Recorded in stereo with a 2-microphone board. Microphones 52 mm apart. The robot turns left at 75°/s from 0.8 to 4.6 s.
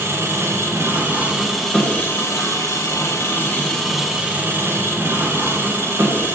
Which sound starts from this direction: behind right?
An engine running, at 0.0 s.